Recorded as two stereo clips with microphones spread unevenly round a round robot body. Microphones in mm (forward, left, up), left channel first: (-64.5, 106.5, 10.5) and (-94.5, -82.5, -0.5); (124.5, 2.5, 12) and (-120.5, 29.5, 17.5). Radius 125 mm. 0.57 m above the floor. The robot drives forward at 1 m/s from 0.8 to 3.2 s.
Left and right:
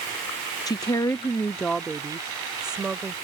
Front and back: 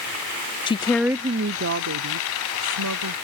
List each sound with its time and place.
0.7 s a woman speaking: 30° left; by 3.1 s 175° left